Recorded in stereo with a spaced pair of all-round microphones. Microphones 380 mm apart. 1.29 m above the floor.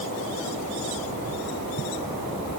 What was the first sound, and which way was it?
Only background noise.